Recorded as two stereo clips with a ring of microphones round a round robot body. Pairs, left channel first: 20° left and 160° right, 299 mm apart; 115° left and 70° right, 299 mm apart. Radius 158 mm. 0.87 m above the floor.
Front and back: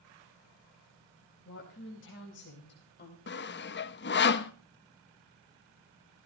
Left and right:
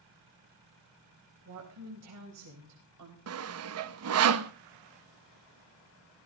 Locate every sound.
1.4 s a woman speaking: 25° right, 4.5 m; by 3.2 s 35° right, 4 m
3.3 s sawing: 30° right, 0.9 m